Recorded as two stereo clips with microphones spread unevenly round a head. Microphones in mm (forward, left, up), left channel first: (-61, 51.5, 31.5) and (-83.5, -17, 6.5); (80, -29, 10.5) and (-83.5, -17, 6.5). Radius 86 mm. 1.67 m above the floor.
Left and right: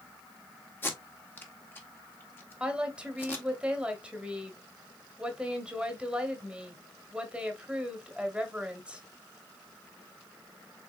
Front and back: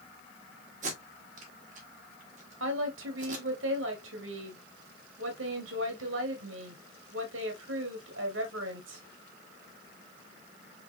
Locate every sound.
0.8 s tape being pulled: 125° left, 1.3 m
2.6 s a woman speaking: 175° left, 1.3 m